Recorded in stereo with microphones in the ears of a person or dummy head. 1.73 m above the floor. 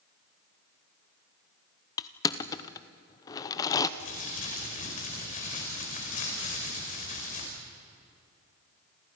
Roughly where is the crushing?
Left.